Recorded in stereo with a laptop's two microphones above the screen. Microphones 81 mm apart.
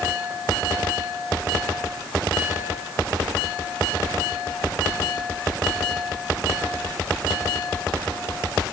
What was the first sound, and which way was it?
Only background noise.